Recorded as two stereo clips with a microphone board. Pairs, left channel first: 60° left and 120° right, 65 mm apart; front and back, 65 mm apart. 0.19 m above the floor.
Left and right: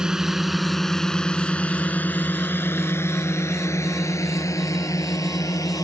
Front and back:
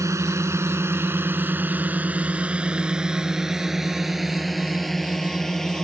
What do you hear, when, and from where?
0.0 s a drone: 165° left; by 5.8 s 80° left